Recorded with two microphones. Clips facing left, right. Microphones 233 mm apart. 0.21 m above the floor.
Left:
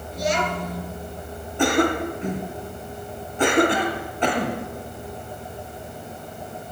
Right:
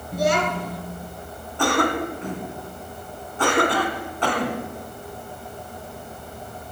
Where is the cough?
20° left (ahead or behind), 2 m.